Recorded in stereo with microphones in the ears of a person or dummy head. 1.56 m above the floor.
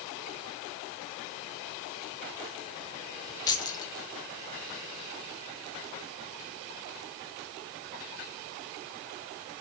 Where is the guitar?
No guitar in this recording.